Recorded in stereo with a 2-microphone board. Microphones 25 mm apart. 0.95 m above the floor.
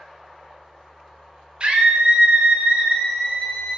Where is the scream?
40° right (ahead or behind), 0.6 m; by 3.8 s 35° right (ahead or behind), 1.2 m.